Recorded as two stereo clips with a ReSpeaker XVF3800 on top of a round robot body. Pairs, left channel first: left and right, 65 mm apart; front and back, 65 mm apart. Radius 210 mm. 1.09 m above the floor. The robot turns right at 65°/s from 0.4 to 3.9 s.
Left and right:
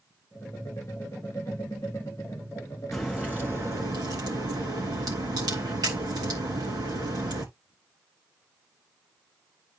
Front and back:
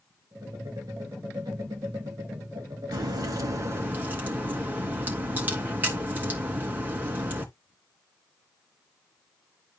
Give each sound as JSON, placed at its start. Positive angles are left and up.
{"t": 2.9, "sound": "a crack", "azimuth_deg": 175, "distance_m": 2.5}